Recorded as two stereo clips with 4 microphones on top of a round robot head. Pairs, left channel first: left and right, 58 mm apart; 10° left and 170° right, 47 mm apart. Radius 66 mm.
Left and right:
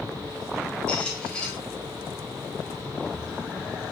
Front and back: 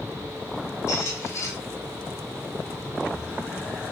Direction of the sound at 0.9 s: 20° left.